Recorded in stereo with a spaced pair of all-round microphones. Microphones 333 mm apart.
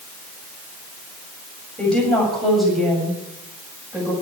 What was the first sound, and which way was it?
A woman speaking, 5° left (ahead or behind).